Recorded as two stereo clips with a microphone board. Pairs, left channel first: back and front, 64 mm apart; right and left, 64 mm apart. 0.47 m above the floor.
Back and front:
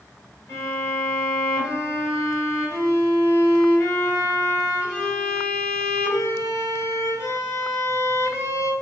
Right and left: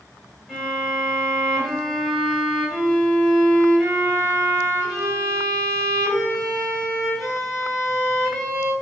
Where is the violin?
170° right, 1.6 m.